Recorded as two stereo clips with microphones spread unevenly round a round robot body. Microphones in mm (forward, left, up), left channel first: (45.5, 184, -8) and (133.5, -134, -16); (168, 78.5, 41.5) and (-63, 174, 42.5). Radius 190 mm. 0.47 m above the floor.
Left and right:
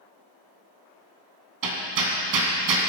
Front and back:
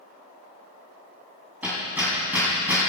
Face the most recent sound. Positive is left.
turn(degrees=-115)